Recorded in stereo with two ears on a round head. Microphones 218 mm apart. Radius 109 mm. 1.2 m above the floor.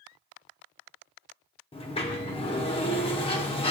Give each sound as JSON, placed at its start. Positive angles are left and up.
{"t": 1.7, "sound": "a sliding door", "side_deg": 25, "distance_m": 0.8}